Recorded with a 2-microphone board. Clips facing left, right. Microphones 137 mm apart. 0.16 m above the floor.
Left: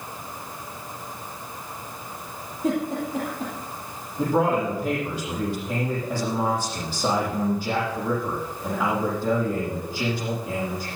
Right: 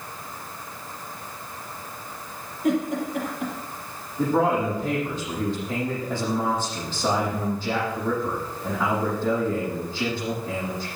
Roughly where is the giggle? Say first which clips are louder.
Right 1 dB; left.